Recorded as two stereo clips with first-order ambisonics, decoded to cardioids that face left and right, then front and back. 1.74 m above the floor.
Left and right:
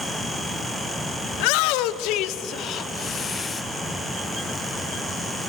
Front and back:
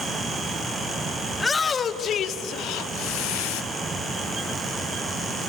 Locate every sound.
1.3 s a shout: 80° left, 1.1 m; by 3.6 s 15° left, 1.2 m